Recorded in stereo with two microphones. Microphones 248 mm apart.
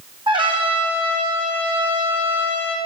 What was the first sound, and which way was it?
A trumpet, 20° right (ahead or behind).